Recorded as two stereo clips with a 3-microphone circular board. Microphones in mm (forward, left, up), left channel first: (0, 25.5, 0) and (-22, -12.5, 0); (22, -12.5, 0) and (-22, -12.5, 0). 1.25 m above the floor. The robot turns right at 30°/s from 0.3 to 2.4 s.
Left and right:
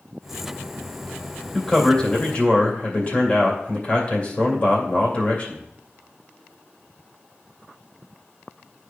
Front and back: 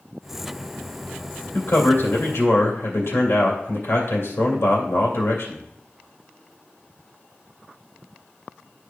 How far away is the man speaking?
About 2 m.